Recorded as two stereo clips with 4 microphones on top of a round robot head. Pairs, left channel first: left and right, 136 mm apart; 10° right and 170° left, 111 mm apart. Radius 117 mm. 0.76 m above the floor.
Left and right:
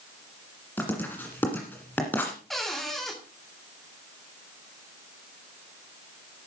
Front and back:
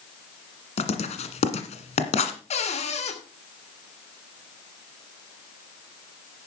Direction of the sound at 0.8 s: 10° left.